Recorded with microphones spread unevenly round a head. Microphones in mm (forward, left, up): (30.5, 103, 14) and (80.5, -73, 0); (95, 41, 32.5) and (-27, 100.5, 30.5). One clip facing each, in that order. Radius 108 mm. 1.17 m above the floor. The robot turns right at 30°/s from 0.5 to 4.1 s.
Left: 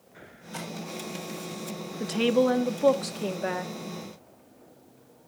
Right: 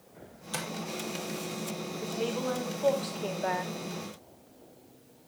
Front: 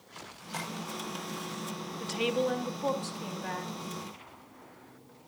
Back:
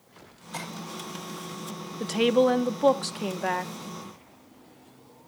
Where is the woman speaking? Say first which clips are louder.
Left 10 dB, back 9 dB; 120° left, 1.0 m; by 3.7 s 175° left, 1.0 m.